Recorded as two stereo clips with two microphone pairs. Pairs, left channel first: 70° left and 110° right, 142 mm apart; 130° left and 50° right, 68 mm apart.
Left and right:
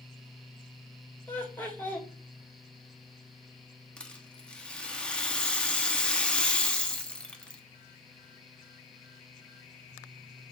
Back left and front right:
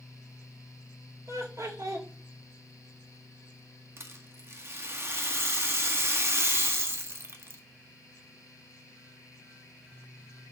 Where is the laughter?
10° right, 2.5 m.